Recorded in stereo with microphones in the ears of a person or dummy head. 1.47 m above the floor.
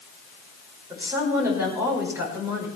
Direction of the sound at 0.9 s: 15° right (ahead or behind).